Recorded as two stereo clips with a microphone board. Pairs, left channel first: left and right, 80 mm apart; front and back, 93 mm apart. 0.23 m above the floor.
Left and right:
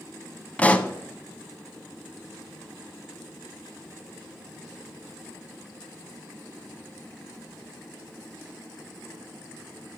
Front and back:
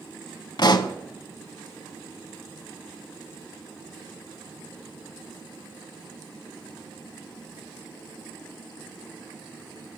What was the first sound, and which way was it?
A pop, 20° left.